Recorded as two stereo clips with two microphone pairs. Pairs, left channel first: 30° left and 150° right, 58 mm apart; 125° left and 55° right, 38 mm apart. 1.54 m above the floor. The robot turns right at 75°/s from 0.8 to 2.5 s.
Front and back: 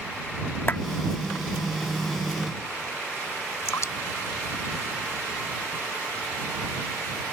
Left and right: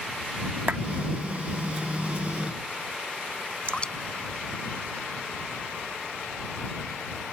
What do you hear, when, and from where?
0.7 s a clap: 20° right
3.6 s dripping: 60° left